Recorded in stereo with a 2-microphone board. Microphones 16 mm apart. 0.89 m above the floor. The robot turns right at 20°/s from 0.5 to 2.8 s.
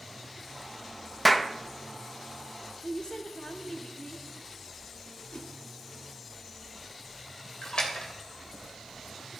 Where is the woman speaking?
50° left (ahead or behind), 1.8 m.